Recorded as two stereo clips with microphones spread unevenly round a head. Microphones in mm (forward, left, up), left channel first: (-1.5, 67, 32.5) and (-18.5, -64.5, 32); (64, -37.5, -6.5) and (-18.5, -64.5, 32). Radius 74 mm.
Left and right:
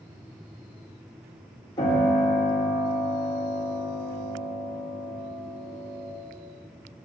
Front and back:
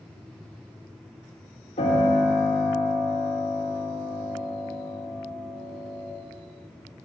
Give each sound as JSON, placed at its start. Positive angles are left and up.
{"t": 1.8, "sound": "a piano", "azimuth_deg": 20, "distance_m": 2.0}